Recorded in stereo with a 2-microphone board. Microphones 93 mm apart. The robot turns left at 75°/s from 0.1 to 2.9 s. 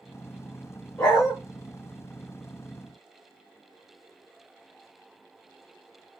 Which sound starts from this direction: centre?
A dog barking, at 1.0 s.